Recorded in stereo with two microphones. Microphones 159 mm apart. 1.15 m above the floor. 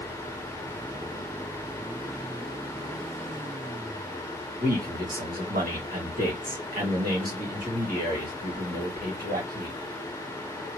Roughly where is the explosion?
I don't hear an explosion.